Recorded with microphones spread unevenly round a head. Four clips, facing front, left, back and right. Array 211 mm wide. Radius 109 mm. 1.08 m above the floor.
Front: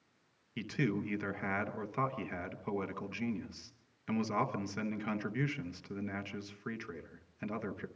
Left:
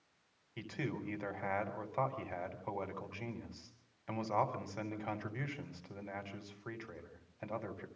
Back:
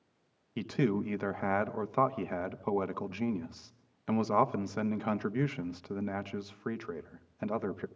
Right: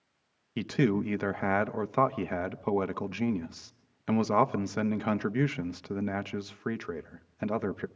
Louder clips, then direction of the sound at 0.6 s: Right 14 dB, back 5 dB; 110° right.